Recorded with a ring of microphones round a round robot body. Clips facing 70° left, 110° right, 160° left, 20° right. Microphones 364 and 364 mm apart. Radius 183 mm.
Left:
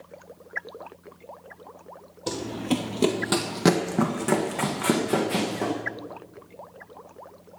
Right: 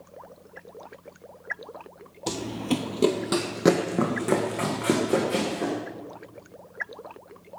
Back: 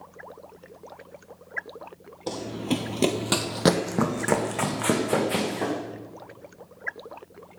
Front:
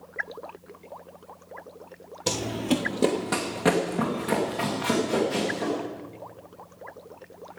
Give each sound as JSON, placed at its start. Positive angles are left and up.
{"t": 2.3, "sound": "running footsteps", "azimuth_deg": -40, "distance_m": 1.0}